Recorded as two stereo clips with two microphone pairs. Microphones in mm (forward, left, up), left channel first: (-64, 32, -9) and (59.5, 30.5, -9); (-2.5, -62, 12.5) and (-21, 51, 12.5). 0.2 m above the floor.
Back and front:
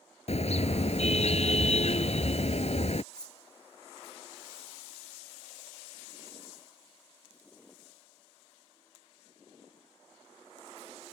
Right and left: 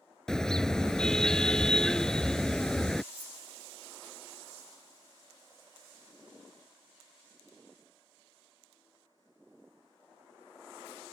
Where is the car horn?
165° right.